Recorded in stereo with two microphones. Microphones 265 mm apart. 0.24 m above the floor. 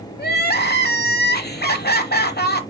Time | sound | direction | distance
0.2 | crying | 35° left (ahead or behind) | 0.8 m